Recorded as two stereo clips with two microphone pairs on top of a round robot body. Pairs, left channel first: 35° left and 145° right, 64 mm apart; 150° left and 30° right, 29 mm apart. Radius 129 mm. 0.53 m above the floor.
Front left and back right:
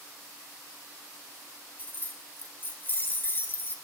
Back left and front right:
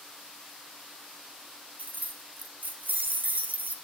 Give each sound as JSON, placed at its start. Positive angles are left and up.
{"t": 1.8, "sound": "keys jangling", "azimuth_deg": -25, "distance_m": 1.1}